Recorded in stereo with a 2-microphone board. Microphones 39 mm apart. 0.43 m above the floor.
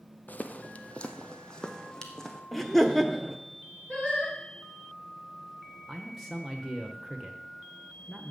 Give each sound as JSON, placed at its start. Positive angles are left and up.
{"t": 0.3, "sound": "footsteps", "side_deg": 45, "distance_m": 0.9}
{"t": 2.5, "sound": "laughter", "side_deg": 5, "distance_m": 1.1}
{"t": 3.9, "sound": "singing", "side_deg": 10, "distance_m": 8.0}
{"t": 5.9, "sound": "a man speaking", "side_deg": 0, "distance_m": 1.2}